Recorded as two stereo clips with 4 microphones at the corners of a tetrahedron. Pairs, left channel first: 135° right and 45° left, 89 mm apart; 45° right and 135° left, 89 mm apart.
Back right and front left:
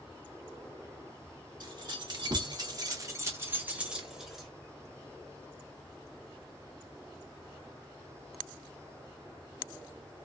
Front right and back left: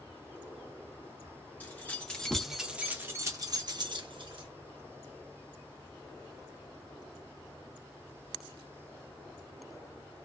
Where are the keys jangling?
20° left, 1.1 m; by 4.5 s 135° left, 1.1 m.